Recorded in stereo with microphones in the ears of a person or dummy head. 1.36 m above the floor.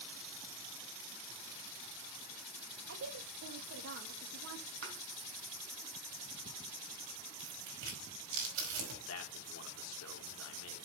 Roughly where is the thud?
Right.